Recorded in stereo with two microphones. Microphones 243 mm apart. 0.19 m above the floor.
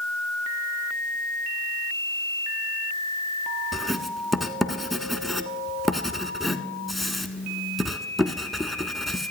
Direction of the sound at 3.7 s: Centre (ahead or behind).